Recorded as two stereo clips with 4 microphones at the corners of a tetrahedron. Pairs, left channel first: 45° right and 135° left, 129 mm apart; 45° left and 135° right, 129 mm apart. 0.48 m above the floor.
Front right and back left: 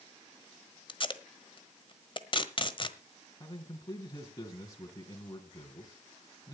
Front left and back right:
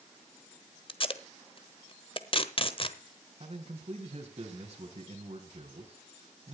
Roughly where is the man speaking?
Right.